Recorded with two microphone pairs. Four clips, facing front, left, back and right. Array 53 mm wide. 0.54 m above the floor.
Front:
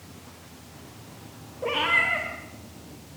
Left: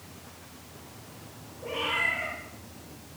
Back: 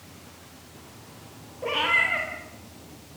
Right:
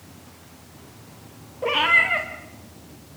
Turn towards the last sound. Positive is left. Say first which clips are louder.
# right 10 dB, even
turn(degrees=-90)